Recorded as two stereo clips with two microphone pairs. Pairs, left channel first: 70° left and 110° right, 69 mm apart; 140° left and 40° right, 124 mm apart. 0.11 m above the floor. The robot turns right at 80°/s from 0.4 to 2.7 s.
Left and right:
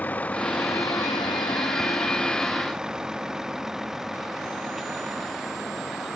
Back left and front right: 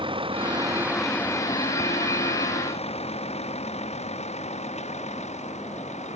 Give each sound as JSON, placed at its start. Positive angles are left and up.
{"t": 0.0, "sound": "a vehicle", "azimuth_deg": 5}